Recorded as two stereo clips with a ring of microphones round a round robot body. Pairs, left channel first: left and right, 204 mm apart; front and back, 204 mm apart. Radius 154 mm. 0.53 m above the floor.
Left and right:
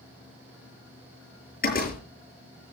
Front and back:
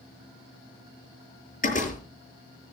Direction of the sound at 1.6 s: 50° left.